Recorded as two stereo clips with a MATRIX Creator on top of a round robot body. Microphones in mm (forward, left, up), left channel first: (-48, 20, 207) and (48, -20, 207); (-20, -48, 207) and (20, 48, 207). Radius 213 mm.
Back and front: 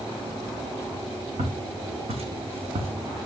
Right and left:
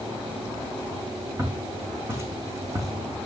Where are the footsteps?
5° right, 3 m; by 2.9 s 10° left, 2 m.